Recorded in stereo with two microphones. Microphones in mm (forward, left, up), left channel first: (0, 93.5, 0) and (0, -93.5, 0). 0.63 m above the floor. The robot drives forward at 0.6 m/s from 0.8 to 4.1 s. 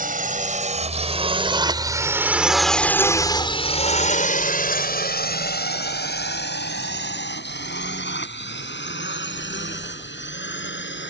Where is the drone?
50° right (ahead or behind); by 11.1 s 80° left.